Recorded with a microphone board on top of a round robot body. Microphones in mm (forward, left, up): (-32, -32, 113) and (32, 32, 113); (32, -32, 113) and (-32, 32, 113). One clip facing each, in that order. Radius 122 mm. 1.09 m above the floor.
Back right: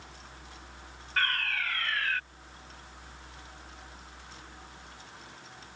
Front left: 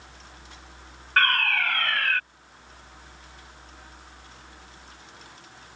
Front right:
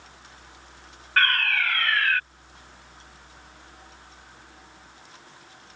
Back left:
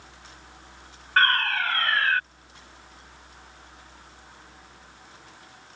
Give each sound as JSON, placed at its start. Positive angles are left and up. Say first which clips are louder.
{"t": 1.2, "sound": "a fire alarm", "louder": "front left 8 dB, back left 2 dB", "azimuth_deg": 75}